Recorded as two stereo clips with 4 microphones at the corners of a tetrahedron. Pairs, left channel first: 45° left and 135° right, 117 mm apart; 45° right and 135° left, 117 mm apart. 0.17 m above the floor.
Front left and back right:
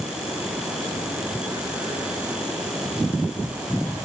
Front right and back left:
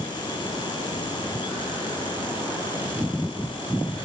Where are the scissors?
No scissors in this recording.